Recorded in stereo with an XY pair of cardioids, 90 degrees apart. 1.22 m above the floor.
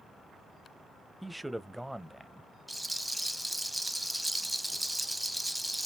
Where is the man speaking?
5° right, 0.5 m.